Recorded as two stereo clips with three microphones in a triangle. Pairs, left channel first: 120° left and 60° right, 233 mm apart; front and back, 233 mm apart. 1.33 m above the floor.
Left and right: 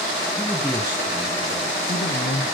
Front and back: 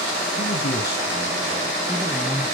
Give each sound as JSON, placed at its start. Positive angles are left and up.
{"t": 0.4, "sound": "a man speaking", "azimuth_deg": 30, "distance_m": 1.5}